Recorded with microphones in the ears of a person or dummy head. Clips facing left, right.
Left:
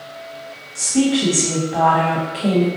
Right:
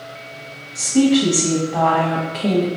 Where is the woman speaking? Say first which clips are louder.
Right 3 dB; centre (ahead or behind), 1.0 m.